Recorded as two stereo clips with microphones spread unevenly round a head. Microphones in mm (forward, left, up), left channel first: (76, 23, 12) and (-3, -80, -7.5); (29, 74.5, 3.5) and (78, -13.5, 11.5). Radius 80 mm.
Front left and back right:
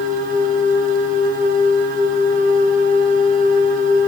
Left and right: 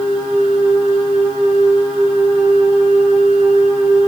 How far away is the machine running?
About 1.0 m.